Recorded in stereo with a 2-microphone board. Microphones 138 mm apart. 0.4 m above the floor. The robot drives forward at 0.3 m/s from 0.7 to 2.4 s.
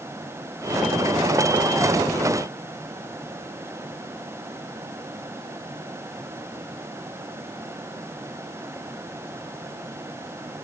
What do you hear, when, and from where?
Only background noise.